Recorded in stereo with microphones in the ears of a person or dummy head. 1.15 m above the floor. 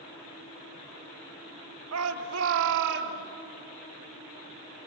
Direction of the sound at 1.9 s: 85° right.